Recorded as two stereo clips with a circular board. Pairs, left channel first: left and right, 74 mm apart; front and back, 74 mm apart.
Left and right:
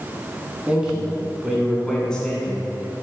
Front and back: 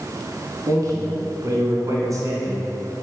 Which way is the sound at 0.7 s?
165° right.